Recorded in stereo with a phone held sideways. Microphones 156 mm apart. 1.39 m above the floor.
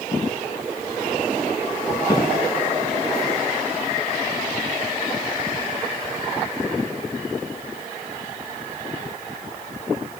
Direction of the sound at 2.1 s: 25° left (ahead or behind).